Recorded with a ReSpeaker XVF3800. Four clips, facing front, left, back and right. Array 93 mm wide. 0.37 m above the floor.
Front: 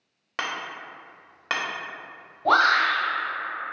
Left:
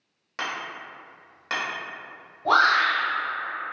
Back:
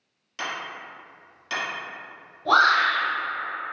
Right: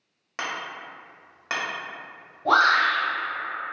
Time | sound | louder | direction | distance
0.4 | hammering | even, front 1 dB | 10° right | 0.7 m
2.5 | a shout | even, back 1 dB | straight ahead | 1.4 m